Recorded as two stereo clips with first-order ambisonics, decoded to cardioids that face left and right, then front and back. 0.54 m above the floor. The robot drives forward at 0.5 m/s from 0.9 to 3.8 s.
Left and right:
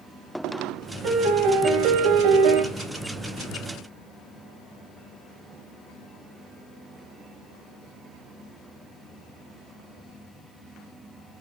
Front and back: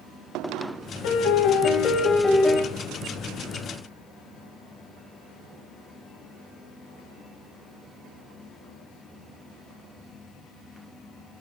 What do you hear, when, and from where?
1.0 s a piano: 35° right, 0.9 m; by 2.6 s 100° right, 0.6 m